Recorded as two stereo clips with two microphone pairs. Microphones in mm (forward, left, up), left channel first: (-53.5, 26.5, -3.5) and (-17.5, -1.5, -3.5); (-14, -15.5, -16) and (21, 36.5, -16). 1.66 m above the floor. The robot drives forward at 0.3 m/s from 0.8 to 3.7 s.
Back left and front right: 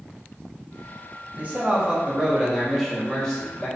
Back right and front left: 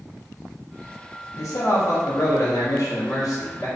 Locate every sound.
1.4 s a man speaking: 95° right, 0.6 m; by 3.7 s 140° right, 1.0 m